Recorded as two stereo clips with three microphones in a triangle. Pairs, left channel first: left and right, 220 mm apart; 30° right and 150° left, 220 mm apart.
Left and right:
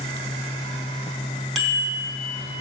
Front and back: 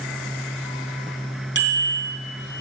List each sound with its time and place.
1.6 s a bicycle bell: straight behind, 3 m